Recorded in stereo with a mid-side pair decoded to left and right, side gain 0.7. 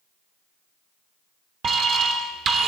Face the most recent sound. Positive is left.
turn(degrees=-45)